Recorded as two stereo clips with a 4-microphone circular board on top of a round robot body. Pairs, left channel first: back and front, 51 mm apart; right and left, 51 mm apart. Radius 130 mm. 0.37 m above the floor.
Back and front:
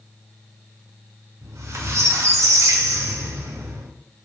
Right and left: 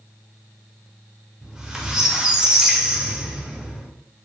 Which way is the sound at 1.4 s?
15° left.